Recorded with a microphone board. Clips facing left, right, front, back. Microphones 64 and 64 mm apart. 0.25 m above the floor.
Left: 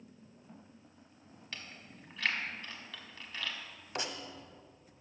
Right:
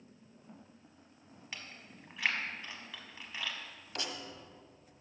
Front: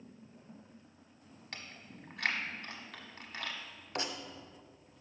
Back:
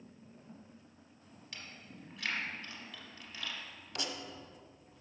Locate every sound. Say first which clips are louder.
1.5 s chewing: even, front 1 dB; 15° right, 1.0 m
4.0 s writing: left 3 dB, front 4 dB; 35° left, 0.8 m